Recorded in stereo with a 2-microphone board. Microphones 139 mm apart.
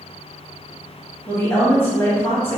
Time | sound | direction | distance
1.3 | a woman speaking | 15° left (ahead or behind) | 1.0 m